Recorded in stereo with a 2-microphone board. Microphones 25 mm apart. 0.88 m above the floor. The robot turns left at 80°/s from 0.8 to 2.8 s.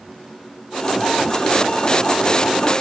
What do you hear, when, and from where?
Only background noise.